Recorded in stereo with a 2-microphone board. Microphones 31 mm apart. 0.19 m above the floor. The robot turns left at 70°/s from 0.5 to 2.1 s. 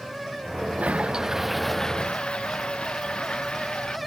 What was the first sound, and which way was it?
A toilet flushing, 125° right.